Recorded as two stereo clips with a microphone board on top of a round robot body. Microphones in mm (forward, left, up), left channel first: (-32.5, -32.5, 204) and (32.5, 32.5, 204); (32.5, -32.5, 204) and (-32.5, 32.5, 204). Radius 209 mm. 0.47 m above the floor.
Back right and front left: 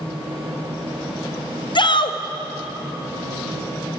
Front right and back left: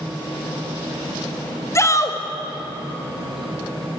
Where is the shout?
105° right, 3.5 m.